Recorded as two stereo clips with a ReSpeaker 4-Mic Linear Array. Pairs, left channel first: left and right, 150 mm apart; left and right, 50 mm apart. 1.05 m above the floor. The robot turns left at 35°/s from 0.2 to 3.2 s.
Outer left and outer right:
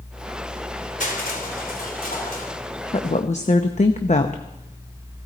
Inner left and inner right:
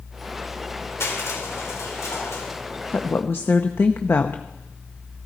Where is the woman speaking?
40° left (ahead or behind), 0.9 m; by 5.3 s 50° left (ahead or behind), 0.9 m.